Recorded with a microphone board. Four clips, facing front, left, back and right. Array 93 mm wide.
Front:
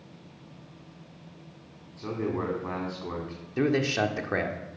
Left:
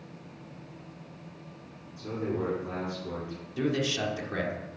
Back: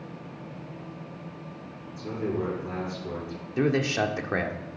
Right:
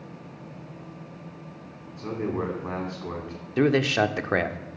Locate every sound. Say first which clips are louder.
2.0 s a man speaking: right 3 dB, back 1 dB; 50° right, 3.5 m
3.6 s a man speaking: right 8 dB, even; 90° right, 1.0 m